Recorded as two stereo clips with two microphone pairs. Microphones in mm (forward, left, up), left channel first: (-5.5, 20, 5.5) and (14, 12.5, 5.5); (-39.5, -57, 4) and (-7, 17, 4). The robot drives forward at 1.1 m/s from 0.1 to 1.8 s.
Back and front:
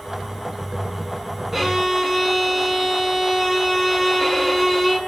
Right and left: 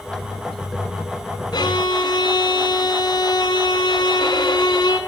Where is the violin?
95° right, 4 m; by 5.0 s 100° right, 4 m.